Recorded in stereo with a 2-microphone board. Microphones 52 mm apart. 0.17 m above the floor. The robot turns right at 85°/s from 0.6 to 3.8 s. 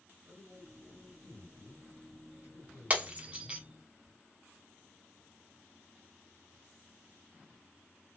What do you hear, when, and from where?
0.2 s a man speaking: 65° right, 3 m; by 3.6 s 170° right, 3 m
2.9 s breaking glass: 30° right (ahead or behind), 0.9 m; by 3.6 s 15° right (ahead or behind), 0.9 m